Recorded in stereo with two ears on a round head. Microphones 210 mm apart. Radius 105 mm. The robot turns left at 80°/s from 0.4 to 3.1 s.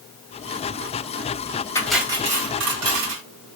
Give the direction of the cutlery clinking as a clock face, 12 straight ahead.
12 o'clock.